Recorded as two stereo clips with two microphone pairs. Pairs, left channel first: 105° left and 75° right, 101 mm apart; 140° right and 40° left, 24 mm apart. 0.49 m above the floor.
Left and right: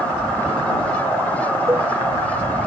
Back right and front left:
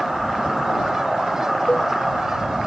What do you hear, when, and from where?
1.7 s a cowbell: 140° right